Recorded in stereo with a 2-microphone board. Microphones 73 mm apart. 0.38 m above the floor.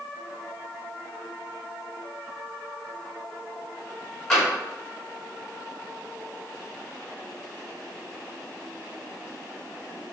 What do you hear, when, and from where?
4.3 s tapping: 5° left (ahead or behind), 1.8 m